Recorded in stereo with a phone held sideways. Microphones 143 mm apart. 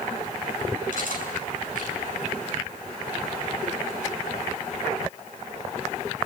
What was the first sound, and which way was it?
Cutlery clinking, 70° left (ahead or behind).